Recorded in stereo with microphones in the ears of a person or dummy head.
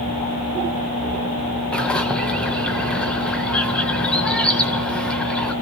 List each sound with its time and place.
1.7 s a bird: 10° left (ahead or behind), 0.7 m